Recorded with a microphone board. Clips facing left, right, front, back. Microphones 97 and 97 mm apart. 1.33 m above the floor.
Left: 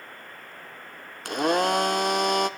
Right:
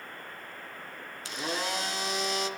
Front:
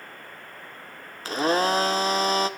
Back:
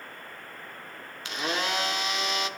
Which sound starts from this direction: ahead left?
A blender, at 1.2 s.